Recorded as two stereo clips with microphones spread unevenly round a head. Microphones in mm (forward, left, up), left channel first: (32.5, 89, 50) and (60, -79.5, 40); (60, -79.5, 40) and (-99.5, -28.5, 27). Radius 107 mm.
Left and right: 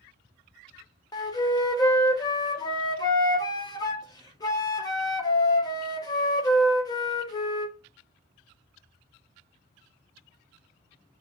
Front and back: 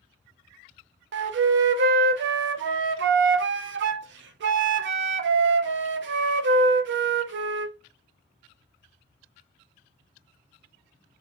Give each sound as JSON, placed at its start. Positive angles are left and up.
{"t": 1.1, "sound": "a flute", "azimuth_deg": 170, "distance_m": 0.5}